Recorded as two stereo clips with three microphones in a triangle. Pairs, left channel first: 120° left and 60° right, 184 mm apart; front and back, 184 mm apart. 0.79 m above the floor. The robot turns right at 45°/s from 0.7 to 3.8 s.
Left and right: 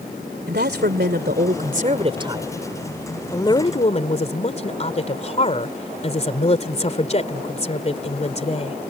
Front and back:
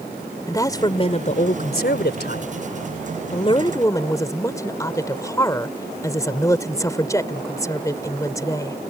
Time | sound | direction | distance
0.5 | a woman speaking | 70° right | ?